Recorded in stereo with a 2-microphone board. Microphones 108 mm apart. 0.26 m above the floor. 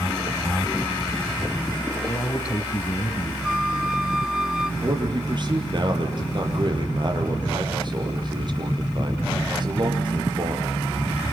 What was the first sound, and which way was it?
A man speaking, 40° left (ahead or behind).